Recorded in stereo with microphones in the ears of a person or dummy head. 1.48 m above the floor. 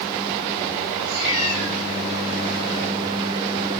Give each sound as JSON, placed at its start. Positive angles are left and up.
{"t": 1.0, "sound": "a cat meowing", "side_deg": -75, "distance_m": 9.0}